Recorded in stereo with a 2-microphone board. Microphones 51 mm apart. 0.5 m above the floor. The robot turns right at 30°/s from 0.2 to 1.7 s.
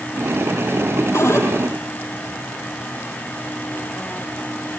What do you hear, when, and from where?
1.1 s a cupboard door: 70° left (ahead or behind), 7 m; by 1.5 s 60° left (ahead or behind), 7 m